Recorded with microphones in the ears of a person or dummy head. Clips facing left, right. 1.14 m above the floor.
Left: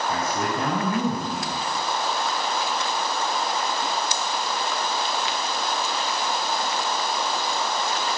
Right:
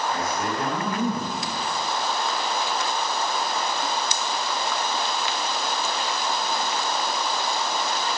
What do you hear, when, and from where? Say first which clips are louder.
0.1 s a man speaking: left 1 dB; 75° left (ahead or behind), 10 m